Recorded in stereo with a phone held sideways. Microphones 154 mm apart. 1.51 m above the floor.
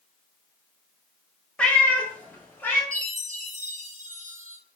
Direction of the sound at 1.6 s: 10° left (ahead or behind).